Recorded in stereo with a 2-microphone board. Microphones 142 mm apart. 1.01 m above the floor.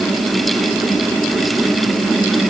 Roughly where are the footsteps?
I don't hear footsteps.